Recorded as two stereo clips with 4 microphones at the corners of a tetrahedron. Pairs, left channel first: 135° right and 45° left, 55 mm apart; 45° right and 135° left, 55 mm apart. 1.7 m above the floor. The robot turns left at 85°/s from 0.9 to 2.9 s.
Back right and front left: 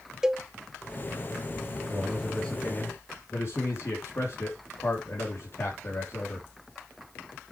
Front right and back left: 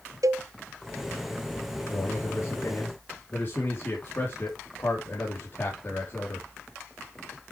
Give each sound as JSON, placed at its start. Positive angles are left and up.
{"t": 0.2, "sound": "a cowbell", "azimuth_deg": 125, "distance_m": 0.5}
{"t": 1.9, "sound": "a man speaking", "azimuth_deg": -10, "distance_m": 3.5}